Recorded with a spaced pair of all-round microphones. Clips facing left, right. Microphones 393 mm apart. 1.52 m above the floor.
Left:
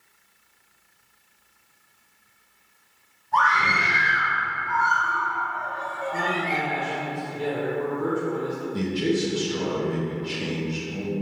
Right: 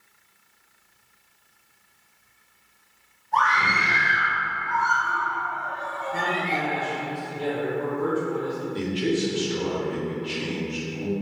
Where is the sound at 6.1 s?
15° left (ahead or behind), 1.3 m.